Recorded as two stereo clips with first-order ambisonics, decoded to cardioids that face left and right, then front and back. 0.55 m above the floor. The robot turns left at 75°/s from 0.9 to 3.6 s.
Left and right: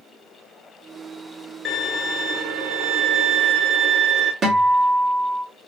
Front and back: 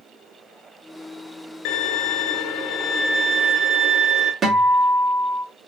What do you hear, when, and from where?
1.6 s a violin: 20° left, 0.7 m; by 4.3 s 125° right, 0.7 m
4.4 s a guitar: 125° right, 1.1 m